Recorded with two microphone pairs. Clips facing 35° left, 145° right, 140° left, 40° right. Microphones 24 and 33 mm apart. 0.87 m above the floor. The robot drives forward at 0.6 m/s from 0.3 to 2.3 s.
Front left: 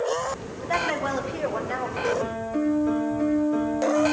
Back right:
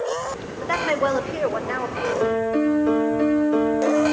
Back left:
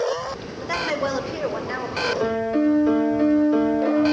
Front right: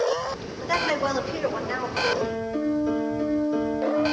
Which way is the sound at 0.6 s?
135° right.